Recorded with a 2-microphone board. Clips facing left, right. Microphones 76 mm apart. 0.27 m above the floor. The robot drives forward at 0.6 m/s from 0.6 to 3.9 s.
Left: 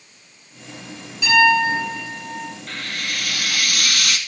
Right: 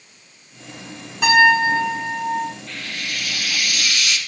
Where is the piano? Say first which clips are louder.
Right 2 dB; 60° right (ahead or behind), 8.5 m; by 2.5 s 65° right (ahead or behind), 8 m.